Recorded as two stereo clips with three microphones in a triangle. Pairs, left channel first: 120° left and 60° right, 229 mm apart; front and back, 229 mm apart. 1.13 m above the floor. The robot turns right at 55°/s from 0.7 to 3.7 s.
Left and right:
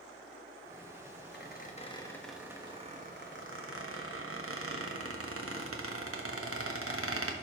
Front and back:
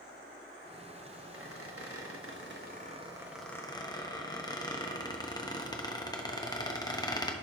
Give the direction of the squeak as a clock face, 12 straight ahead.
7 o'clock.